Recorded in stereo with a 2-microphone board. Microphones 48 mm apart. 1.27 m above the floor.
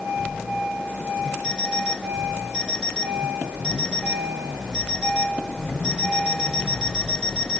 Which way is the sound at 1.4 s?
20° left (ahead or behind).